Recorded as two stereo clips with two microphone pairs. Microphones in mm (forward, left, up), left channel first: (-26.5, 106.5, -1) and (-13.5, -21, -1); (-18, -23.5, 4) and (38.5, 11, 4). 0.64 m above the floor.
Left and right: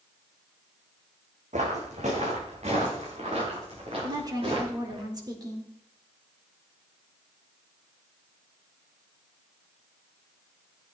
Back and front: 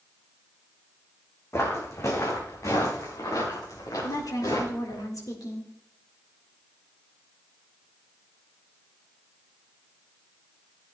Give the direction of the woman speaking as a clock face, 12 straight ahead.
5 o'clock.